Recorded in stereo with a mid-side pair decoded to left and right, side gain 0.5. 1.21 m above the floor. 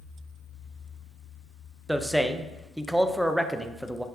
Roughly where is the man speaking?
Ahead.